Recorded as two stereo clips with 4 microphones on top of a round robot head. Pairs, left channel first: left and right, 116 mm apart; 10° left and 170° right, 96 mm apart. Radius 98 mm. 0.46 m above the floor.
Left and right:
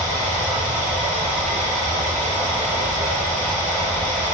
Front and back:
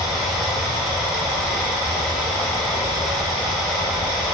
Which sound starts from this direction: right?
Running water, at 0.0 s.